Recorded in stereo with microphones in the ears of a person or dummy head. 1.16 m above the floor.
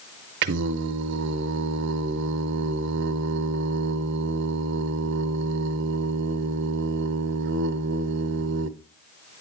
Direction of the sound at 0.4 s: 65° right (ahead or behind).